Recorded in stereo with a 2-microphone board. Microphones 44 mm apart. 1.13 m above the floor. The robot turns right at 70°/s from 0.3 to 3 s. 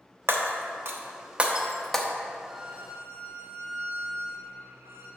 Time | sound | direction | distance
0.3 | breaking glass | 60° right (ahead or behind) | 0.9 m
2.5 | a violin | 170° right | 1.5 m